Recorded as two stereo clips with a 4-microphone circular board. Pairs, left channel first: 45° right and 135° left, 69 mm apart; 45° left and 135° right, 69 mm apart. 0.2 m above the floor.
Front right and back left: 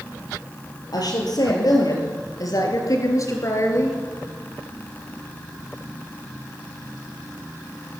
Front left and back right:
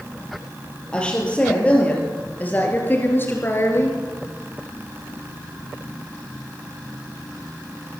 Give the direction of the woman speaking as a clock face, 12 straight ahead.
1 o'clock.